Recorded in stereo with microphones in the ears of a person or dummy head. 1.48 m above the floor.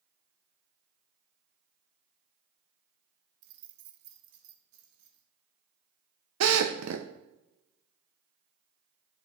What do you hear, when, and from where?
3.4 s keys jangling: 70° right (ahead or behind), 1.3 m
6.4 s a drill: 75° right (ahead or behind), 1.0 m